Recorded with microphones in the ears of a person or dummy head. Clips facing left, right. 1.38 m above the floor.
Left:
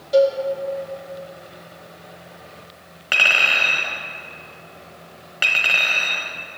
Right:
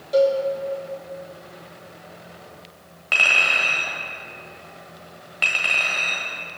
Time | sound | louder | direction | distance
0.1 | a cowbell | left 2 dB | 5° left (ahead or behind) | 1.5 m
3.1 | a clink | left 2 dB | 15° left (ahead or behind) | 1.1 m